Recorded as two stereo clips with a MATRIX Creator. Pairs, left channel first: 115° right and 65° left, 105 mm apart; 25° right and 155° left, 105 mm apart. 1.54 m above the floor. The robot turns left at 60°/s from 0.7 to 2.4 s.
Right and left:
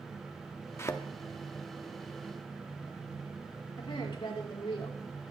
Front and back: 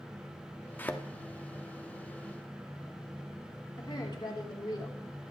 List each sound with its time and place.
0.8 s a thud: 75° right, 1.1 m; by 1.0 s 90° right, 1.1 m
3.8 s a woman speaking: 70° right, 4 m